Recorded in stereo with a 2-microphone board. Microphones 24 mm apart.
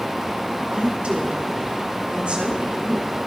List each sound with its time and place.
0.7 s a woman speaking: 55° right (ahead or behind), 3 m